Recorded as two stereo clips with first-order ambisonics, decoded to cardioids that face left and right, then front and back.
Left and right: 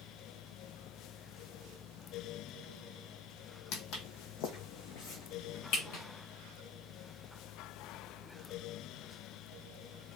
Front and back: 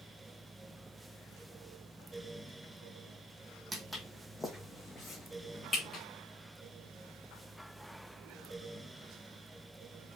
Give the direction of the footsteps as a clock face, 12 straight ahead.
9 o'clock.